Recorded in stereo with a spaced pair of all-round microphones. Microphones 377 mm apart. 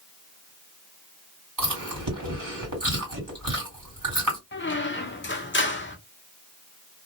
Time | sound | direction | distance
1.6 | chewing | 60° right (ahead or behind) | 2 m
4.5 | a squeak | 30° left (ahead or behind) | 0.7 m